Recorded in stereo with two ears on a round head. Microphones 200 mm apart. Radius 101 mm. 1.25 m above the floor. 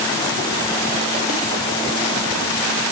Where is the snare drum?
No snare drum in this recording.